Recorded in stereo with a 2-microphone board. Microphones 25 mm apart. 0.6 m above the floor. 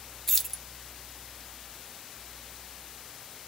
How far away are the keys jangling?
About 0.6 m.